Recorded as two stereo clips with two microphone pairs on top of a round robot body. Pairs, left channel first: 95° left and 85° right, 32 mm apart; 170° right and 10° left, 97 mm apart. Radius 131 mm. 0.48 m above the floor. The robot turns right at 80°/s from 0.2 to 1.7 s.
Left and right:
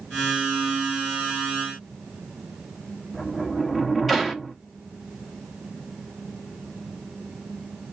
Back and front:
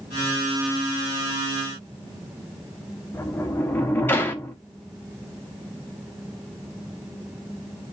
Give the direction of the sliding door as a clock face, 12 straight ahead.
5 o'clock.